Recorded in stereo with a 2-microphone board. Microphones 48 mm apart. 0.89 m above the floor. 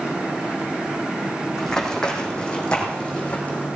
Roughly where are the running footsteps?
Centre.